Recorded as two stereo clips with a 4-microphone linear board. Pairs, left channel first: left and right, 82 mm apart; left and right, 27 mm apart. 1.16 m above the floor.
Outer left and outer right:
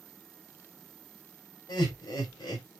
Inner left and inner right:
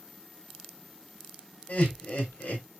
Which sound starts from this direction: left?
Laughter, at 1.7 s.